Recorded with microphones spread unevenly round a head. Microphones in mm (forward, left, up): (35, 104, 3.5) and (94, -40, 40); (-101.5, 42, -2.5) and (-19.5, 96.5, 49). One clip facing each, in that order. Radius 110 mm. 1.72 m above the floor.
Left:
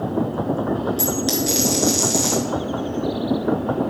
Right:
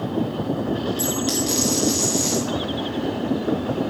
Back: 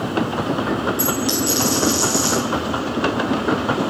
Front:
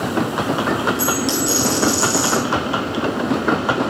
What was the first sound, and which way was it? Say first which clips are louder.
A dropped coin: left 1 dB, front 1 dB; 75° left.